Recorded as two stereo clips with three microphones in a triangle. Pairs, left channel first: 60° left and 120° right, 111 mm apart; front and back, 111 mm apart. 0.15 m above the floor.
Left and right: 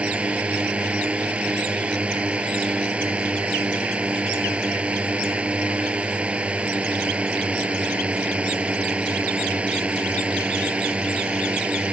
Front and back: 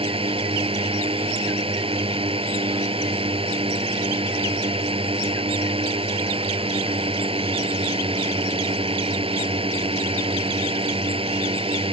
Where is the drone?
165° left.